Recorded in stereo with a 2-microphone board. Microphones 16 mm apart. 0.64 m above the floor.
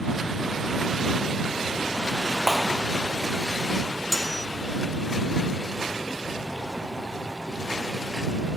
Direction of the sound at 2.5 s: 10° left (ahead or behind).